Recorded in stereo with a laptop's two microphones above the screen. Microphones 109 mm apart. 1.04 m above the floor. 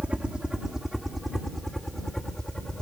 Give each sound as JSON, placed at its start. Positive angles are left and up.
{"t": 0.0, "sound": "a helicopter", "side_deg": -10}